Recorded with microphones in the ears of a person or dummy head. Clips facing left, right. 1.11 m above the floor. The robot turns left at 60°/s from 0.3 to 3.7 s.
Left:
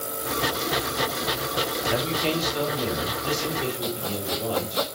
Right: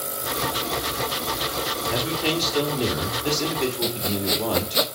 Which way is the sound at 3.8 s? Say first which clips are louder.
Right 3 dB; 35° right (ahead or behind).